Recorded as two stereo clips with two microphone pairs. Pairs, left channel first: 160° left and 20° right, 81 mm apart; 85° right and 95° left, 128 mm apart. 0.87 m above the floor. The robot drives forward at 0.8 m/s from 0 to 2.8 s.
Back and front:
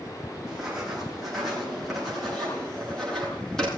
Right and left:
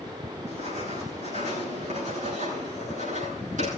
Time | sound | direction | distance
0.5 | writing | 65° left | 8.5 m